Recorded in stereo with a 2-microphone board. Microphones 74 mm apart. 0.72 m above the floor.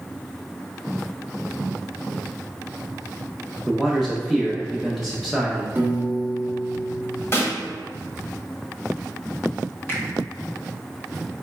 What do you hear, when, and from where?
3.7 s a man speaking: centre (ahead or behind), 0.5 m
5.8 s a piano: 25° right (ahead or behind), 1.1 m
7.3 s a snare drum: 40° left (ahead or behind), 1.6 m
9.9 s a finger snap: 30° left (ahead or behind), 1.0 m